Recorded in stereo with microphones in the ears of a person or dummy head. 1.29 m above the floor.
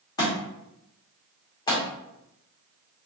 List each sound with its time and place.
0.2 s a thud: 20° left (ahead or behind), 0.9 m